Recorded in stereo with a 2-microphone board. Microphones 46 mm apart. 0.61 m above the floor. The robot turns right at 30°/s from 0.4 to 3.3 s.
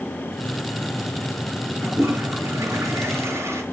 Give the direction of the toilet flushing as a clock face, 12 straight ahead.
4 o'clock.